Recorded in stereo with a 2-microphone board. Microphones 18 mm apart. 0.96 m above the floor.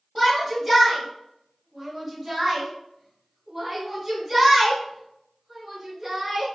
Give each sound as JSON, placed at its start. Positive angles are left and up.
{"t": 0.1, "sound": "a shout", "side_deg": -10, "distance_m": 2.5}